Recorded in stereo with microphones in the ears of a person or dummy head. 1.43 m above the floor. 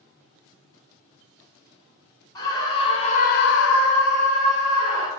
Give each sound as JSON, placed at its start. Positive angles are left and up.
{"t": 2.4, "sound": "a scream", "side_deg": 20, "distance_m": 1.9}